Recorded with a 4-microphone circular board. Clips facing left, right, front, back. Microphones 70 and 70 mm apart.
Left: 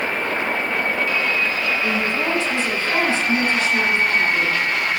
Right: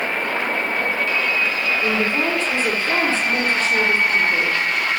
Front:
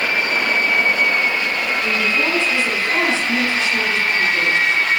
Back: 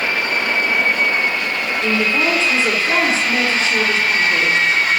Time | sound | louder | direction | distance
1.8 | a woman speaking | right 1 dB, back 4 dB | 130° right | 5 m